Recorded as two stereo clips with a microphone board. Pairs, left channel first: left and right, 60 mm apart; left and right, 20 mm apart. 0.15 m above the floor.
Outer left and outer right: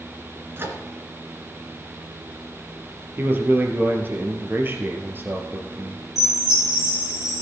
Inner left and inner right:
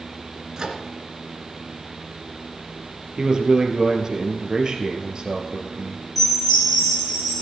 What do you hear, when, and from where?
0.6 s a microwave: 40° right (ahead or behind), 2 m
3.2 s a man speaking: 35° right (ahead or behind), 2.5 m
6.2 s a chime: 5° right (ahead or behind), 7.5 m